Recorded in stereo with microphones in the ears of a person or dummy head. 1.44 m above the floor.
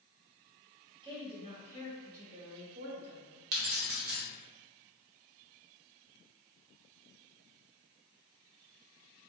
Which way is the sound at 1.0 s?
25° right (ahead or behind).